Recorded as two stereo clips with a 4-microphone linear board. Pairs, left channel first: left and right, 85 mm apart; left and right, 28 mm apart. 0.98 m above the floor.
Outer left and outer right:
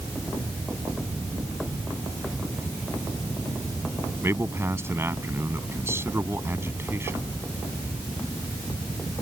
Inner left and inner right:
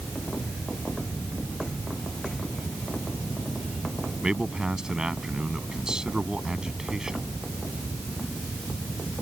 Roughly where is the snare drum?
No snare drum in this recording.